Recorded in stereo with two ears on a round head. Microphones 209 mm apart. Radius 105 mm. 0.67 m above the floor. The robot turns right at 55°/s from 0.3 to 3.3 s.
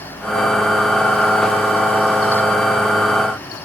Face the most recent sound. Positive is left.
No sound to turn to.